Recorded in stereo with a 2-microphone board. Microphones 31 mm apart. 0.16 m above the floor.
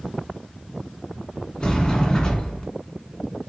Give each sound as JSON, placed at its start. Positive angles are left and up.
{"t": 1.6, "sound": "a sliding door", "side_deg": 25, "distance_m": 1.0}